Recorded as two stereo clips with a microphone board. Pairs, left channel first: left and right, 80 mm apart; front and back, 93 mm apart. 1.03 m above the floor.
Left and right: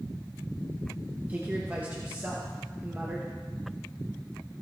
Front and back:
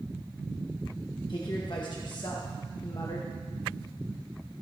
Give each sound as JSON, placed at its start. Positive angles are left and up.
{"t": 1.3, "sound": "a woman speaking", "azimuth_deg": -25, "distance_m": 1.2}